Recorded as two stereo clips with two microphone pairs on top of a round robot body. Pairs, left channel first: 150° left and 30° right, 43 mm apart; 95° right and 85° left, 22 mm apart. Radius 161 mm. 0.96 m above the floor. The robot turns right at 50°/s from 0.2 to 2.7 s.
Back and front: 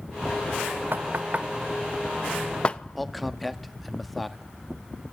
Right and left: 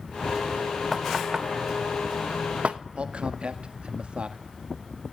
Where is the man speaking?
60° left, 2 m.